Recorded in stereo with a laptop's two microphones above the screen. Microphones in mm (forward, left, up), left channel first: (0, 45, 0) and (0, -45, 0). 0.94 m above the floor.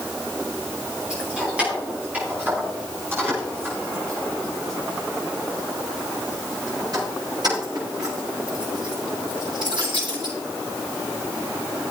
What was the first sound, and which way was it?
Keys jangling, 10° right (ahead or behind).